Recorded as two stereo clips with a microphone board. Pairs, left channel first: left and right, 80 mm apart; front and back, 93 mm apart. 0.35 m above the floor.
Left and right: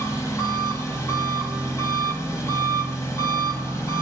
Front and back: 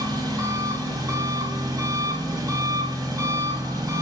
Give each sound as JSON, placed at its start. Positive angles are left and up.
{"t": 0.0, "sound": "an engine running", "azimuth_deg": 140, "distance_m": 1.4}